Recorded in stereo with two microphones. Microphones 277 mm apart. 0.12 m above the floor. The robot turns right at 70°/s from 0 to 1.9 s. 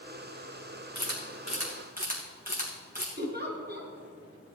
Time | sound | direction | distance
0.9 | a camera shutter | 80° right | 3 m
3.2 | a giggle | 35° right (ahead or behind) | 1.5 m